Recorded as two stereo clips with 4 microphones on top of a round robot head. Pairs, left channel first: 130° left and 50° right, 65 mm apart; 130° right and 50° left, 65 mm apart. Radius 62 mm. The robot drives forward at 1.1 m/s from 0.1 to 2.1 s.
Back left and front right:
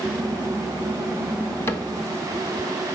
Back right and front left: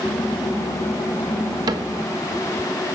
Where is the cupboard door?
75° left, 1.7 m; by 1.9 s 80° left, 1.6 m.